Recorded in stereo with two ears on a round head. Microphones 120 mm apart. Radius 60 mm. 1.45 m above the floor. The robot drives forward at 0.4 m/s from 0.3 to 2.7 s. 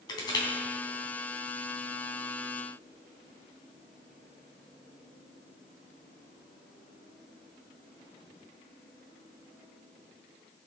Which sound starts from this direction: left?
Crushing, at 0.1 s.